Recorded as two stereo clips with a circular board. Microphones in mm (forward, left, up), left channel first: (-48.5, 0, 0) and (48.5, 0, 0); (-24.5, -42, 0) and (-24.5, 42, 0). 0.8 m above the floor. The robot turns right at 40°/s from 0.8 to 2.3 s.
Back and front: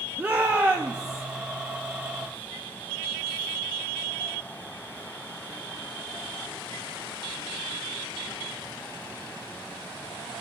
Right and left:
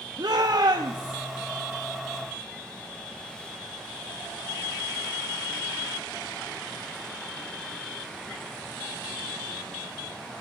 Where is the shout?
70° left, 0.8 m; by 1.2 s 85° left, 0.8 m.